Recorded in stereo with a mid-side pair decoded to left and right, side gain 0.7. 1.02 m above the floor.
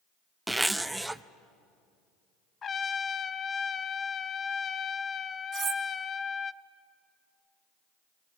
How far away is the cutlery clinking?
About 1.9 m.